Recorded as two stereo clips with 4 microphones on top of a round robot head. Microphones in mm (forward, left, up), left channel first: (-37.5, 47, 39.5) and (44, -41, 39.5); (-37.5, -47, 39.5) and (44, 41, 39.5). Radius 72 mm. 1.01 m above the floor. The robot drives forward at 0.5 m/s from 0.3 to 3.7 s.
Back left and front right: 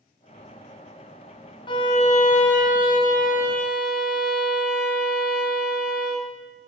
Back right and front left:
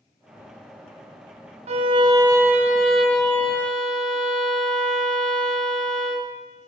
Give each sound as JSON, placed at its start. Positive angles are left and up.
{"t": 1.7, "sound": "a violin", "azimuth_deg": 80, "distance_m": 0.6}